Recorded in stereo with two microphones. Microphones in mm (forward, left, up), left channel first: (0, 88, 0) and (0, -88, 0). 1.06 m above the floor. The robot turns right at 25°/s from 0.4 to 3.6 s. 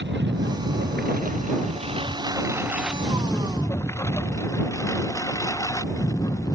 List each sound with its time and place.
0.0 s a lawn mower: 70° right (ahead or behind); by 6.5 s 20° left (ahead or behind)